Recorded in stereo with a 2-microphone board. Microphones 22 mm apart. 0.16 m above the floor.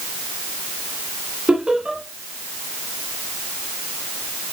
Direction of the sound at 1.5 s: 30° right (ahead or behind).